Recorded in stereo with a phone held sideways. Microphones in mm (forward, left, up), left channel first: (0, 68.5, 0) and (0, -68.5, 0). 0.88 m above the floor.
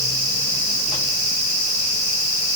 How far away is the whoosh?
No whoosh in this recording.